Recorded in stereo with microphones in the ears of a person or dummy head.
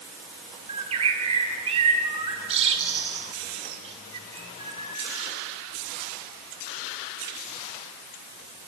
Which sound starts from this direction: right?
A bird, at 0.7 s.